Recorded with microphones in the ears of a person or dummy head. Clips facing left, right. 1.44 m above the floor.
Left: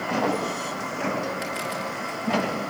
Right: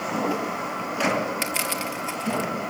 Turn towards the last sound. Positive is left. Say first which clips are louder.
# even
turn(degrees=-40)  # may be behind; listen again after turning